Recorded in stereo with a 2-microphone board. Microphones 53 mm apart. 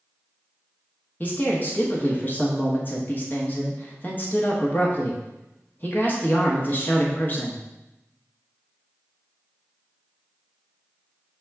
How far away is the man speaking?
About 0.9 m.